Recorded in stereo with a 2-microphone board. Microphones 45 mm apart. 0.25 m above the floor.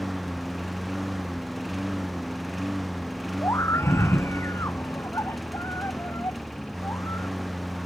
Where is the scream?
70° left (ahead or behind).